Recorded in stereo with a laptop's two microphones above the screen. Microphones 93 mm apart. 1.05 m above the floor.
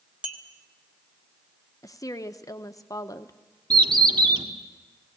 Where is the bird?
50° right (ahead or behind), 1.5 m.